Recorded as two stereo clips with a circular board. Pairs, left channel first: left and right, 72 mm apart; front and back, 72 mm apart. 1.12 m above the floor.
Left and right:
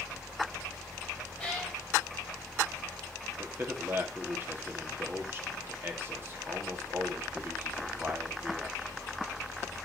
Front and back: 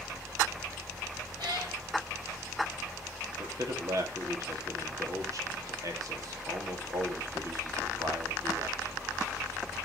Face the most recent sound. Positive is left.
turn(degrees=-145)